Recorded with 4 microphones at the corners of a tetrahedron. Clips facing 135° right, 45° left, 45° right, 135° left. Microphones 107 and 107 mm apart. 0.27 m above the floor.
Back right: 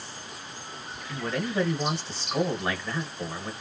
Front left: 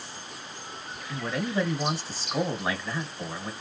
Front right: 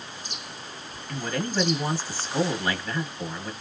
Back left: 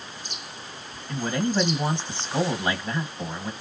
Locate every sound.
1.1 s a man speaking: 130° left, 1.1 m